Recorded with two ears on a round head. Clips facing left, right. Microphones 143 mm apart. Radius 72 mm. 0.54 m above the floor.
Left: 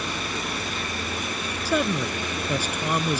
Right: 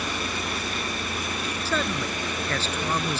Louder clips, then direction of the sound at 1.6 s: Left 5 dB; 10° left (ahead or behind).